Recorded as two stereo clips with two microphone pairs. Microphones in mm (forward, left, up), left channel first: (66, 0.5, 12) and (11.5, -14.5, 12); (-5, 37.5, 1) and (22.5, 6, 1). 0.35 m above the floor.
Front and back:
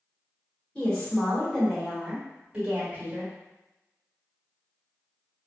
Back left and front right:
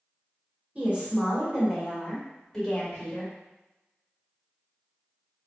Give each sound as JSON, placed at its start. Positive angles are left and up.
{"t": 0.8, "sound": "a woman speaking", "azimuth_deg": -40, "distance_m": 1.4}